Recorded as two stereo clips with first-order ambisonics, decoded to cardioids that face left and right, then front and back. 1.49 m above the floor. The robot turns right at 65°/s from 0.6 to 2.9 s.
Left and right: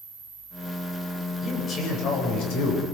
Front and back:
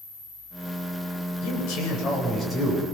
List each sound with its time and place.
1.4 s a man speaking: 5° left, 8.5 m; by 2.8 s 100° left, 8.5 m